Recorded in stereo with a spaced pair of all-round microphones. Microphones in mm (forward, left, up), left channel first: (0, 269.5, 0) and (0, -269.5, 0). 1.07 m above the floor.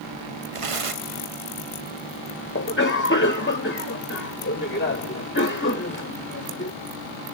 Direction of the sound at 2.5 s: 20° left (ahead or behind).